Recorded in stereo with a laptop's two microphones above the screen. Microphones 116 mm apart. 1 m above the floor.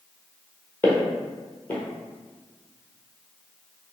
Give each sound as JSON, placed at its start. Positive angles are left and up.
{"t": 0.8, "sound": "footsteps", "side_deg": 15, "distance_m": 1.3}